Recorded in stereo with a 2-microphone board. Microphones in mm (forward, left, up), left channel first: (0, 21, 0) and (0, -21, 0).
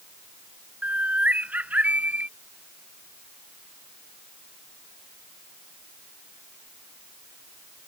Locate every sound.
0.8 s a bird: 40° right (ahead or behind)